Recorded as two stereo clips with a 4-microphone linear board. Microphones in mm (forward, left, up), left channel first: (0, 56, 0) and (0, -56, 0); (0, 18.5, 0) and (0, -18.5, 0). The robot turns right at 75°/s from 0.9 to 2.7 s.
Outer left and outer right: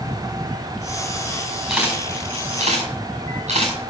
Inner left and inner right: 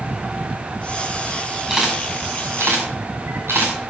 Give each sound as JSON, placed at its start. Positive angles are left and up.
{"t": 1.7, "sound": "a camera shutter", "side_deg": 0, "distance_m": 6.5}